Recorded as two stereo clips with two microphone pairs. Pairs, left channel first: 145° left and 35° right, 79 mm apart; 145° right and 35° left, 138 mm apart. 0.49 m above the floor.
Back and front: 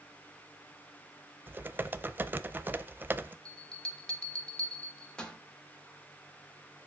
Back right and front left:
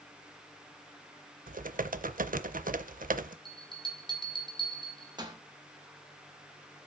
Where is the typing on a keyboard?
30° left, 0.5 m.